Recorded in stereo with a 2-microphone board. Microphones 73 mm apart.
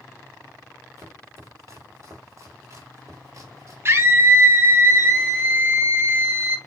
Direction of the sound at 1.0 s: 45° right (ahead or behind).